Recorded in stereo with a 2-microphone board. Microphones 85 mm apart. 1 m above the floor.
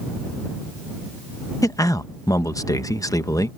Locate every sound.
1.6 s a man speaking: 45° left (ahead or behind)